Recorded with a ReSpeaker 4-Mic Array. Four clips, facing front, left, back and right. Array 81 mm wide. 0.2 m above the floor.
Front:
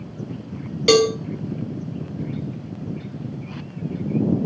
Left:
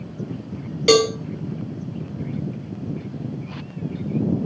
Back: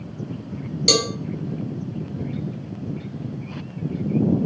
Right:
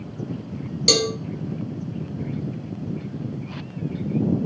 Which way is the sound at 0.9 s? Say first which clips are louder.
Left 7 dB, front 8 dB; 45° left.